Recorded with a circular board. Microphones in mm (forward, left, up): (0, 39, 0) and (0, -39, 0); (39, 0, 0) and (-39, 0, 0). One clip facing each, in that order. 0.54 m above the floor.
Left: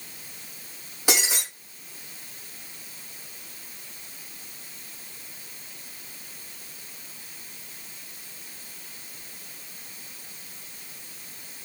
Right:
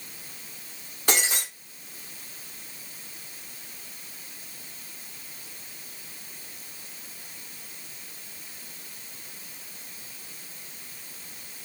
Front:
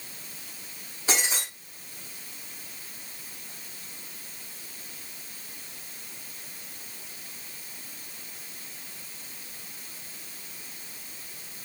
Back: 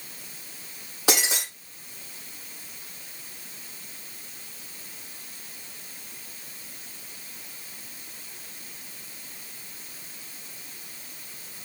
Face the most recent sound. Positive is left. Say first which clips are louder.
# even, back 3 dB
turn(degrees=175)